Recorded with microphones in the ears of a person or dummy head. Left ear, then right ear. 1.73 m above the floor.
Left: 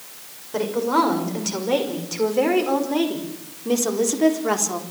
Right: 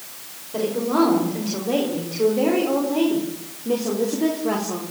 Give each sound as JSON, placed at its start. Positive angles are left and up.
{"t": 0.5, "sound": "a woman speaking", "side_deg": 60, "distance_m": 6.5}